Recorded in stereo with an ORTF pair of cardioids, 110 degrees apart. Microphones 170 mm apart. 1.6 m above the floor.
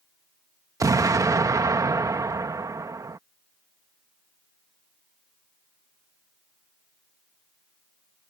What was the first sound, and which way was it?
An explosion, 20° right.